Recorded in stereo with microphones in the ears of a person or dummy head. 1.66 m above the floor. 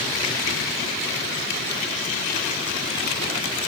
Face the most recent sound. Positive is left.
No sound to turn to.